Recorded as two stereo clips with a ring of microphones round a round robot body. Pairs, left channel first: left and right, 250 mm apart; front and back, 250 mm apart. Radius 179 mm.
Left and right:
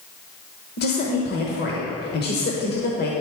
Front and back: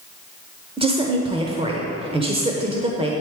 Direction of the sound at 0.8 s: 120° left.